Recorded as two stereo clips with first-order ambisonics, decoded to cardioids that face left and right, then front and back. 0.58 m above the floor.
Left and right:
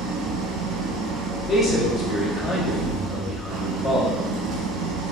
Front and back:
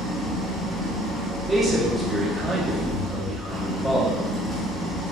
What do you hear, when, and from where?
0.0 s an engine running: 70° right, 0.9 m
1.5 s a man speaking: 85° left, 0.9 m